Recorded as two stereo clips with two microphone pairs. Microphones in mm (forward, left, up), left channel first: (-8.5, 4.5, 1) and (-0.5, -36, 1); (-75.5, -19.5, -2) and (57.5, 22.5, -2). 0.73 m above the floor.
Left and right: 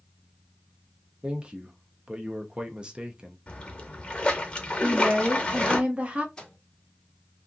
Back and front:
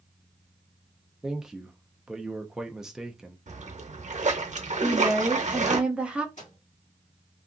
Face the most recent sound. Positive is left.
turn(degrees=170)